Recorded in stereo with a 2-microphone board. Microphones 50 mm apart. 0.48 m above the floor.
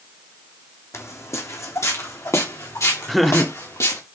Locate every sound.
0.9 s footsteps: 70° left (ahead or behind), 1.7 m; by 4.0 s 80° left, 4 m
3.1 s laughter: centre (ahead or behind), 0.8 m